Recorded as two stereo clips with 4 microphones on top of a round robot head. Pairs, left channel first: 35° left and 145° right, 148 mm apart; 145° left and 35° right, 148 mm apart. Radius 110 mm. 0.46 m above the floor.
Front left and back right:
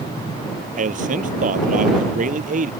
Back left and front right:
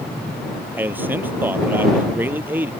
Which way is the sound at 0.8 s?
110° right.